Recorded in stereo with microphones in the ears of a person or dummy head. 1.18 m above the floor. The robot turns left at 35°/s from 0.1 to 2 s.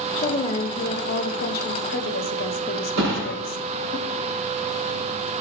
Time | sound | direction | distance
0.1 | a woman speaking | 150° left | 0.7 m
3.0 | a thud | 65° right (ahead or behind) | 5 m